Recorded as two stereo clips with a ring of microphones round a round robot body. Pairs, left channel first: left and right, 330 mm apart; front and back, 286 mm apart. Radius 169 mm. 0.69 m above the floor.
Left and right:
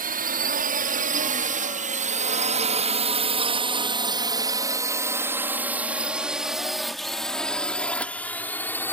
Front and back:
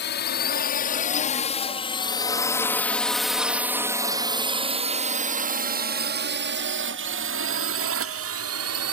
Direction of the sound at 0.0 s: 35° right.